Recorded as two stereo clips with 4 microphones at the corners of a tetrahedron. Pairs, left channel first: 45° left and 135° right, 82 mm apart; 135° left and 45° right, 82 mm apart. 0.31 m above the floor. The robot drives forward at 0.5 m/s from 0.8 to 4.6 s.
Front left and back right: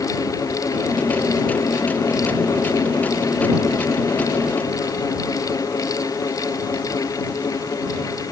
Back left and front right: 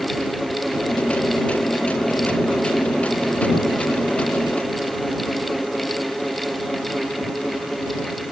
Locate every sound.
Only background noise.